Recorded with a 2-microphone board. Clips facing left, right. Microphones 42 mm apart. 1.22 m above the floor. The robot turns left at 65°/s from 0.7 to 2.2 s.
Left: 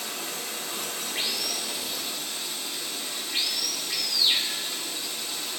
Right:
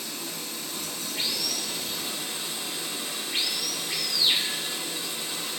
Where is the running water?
80° left, 3 m; by 5.6 s 15° right, 3 m.